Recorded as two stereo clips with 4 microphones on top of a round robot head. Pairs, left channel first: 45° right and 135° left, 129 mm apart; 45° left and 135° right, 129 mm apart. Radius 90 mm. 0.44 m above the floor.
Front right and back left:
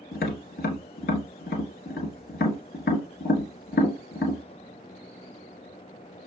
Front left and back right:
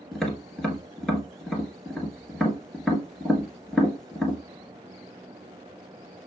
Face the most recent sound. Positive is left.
turn(degrees=-40)